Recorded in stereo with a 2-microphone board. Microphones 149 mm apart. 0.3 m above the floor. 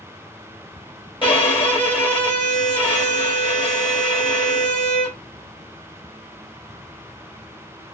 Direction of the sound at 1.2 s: 35° left (ahead or behind).